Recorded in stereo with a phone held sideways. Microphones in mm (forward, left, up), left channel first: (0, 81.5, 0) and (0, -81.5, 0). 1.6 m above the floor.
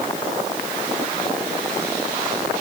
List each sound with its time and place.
Only background noise.